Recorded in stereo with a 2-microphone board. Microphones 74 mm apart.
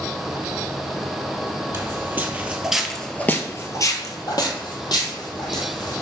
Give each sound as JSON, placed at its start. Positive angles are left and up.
{"t": 1.7, "sound": "footsteps", "side_deg": -35, "distance_m": 1.0}